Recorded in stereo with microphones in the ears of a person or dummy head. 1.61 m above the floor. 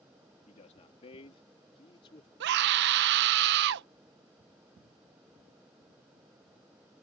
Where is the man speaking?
35° left (ahead or behind); by 2.3 s 25° left (ahead or behind).